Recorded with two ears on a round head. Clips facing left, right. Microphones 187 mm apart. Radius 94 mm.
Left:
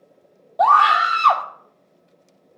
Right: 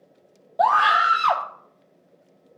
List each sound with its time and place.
0.6 s a scream: 5° right (ahead or behind), 0.6 m